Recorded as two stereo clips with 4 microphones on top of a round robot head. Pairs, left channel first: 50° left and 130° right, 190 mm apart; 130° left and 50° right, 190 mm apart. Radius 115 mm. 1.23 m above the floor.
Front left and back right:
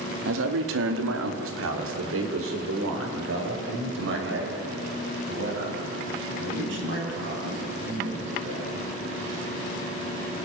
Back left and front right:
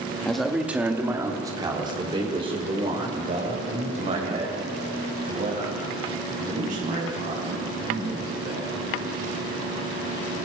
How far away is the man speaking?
About 2 m.